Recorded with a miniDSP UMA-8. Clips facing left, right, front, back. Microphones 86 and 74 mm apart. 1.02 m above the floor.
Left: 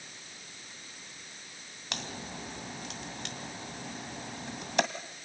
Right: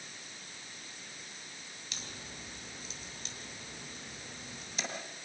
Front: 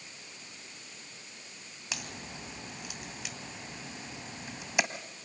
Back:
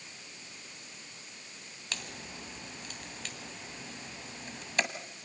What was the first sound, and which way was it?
A crack, 80° left.